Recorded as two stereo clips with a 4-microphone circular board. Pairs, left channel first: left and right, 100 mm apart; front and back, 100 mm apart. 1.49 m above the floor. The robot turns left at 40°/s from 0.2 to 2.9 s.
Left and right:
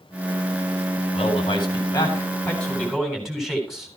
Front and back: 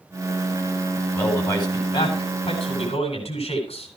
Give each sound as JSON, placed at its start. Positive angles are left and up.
{"t": 1.1, "sound": "a man speaking", "azimuth_deg": 65, "distance_m": 8.0}